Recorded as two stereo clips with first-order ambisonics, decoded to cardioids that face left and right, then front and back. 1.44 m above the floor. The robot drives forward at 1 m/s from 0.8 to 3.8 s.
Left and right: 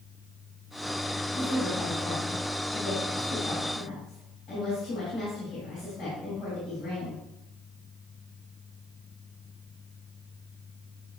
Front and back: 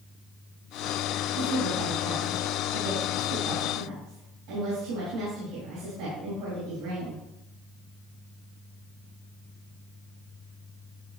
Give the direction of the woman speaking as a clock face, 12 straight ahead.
7 o'clock.